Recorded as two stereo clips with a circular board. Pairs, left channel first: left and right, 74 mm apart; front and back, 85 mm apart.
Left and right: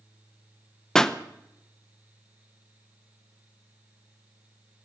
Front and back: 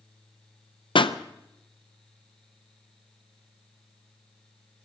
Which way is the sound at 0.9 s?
10° left.